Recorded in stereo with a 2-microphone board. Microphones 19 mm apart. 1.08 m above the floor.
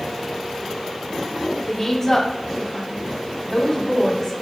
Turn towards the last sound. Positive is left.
turn(degrees=25)  # may be behind; listen again after turning